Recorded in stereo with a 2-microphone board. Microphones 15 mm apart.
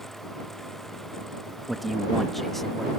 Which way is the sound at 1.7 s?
10° right (ahead or behind).